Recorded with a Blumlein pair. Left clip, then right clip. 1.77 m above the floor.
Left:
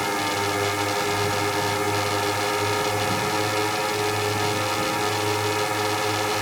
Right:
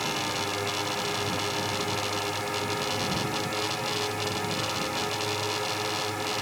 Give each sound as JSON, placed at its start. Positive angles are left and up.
{"t": 0.0, "sound": "a drone", "azimuth_deg": 70}